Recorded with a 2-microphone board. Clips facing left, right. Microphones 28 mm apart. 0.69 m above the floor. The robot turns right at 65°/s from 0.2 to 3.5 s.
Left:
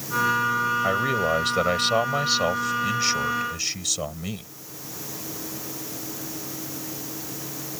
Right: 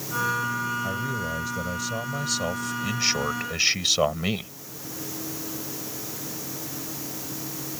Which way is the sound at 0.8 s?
45° left.